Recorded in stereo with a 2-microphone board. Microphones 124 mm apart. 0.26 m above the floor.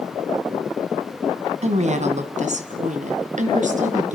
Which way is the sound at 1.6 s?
60° right (ahead or behind).